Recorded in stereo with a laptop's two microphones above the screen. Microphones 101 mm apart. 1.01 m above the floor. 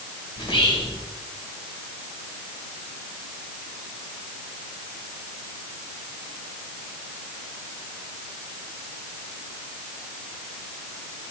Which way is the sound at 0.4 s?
60° left (ahead or behind).